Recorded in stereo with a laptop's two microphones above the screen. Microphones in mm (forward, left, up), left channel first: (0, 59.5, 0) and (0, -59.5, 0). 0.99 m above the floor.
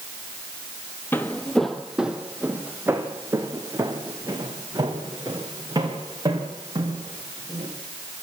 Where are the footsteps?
20° left (ahead or behind), 1.6 m; by 7.7 s 35° right (ahead or behind), 8 m.